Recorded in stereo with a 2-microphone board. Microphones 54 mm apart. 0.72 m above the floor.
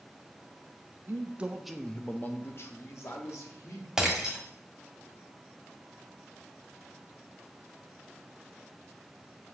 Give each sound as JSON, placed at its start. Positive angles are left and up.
{"t": 1.1, "sound": "a man speaking", "side_deg": -45, "distance_m": 0.6}
{"t": 4.0, "sound": "breaking glass", "side_deg": -10, "distance_m": 1.4}